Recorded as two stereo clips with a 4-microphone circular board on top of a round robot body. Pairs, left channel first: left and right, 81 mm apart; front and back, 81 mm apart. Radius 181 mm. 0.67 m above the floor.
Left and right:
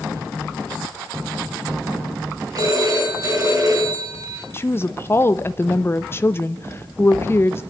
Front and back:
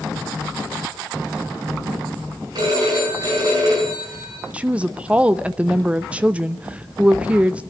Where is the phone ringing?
135° right, 6.5 m.